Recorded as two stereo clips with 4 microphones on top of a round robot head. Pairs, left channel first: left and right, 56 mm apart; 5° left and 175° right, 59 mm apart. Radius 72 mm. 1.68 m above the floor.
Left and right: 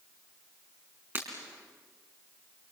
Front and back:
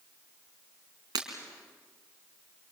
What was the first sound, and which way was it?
Breaking glass, 150° right.